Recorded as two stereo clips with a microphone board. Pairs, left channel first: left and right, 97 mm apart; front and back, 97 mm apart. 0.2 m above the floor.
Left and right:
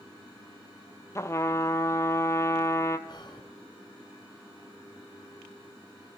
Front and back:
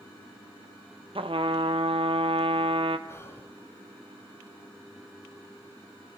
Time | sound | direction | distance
1.1 | a trumpet | 150° left | 1.0 m
3.1 | whispering | 60° left | 2.5 m